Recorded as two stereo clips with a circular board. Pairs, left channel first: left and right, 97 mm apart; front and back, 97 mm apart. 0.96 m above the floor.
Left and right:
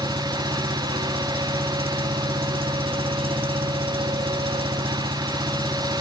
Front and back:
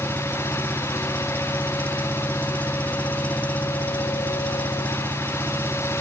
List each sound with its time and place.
0.0 s an engine running: 75° right